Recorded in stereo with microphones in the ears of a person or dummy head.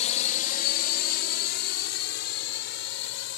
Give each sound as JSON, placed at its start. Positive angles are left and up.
{"t": 0.0, "sound": "a drone", "side_deg": 40}